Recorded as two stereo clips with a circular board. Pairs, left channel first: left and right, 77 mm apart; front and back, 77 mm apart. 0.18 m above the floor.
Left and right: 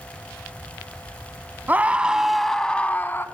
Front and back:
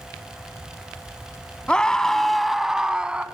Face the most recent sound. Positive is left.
turn(degrees=115)